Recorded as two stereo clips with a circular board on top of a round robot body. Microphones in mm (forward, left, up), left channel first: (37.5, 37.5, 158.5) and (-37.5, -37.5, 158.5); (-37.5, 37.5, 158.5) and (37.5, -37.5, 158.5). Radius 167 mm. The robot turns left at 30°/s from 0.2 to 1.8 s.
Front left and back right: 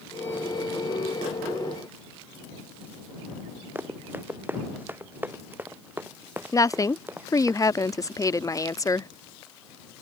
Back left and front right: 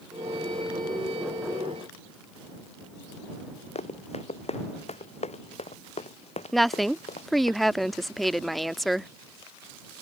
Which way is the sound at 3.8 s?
155° left.